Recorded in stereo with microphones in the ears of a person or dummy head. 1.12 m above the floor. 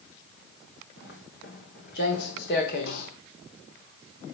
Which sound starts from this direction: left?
Footsteps, at 1.0 s.